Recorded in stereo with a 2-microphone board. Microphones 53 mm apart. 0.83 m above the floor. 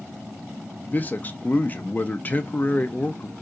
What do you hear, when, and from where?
0.9 s a man speaking: 30° left (ahead or behind), 0.5 m